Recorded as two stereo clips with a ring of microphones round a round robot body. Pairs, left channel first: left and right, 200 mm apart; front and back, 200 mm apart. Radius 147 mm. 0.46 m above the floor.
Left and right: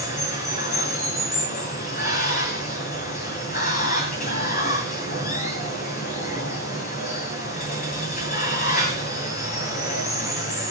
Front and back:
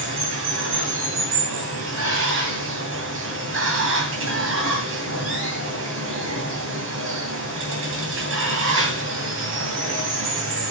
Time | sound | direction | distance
0.0 | running water | 150° left | 2.5 m